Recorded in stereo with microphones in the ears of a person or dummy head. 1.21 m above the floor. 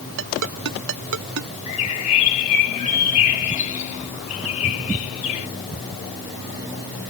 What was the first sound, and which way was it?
A ringtone, 70° right (ahead or behind).